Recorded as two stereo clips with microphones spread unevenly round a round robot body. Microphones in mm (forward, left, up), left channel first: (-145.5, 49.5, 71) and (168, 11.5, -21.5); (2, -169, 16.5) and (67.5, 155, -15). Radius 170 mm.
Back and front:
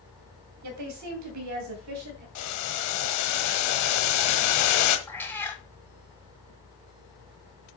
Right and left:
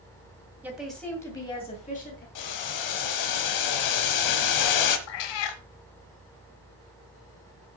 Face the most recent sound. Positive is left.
turn(degrees=-100)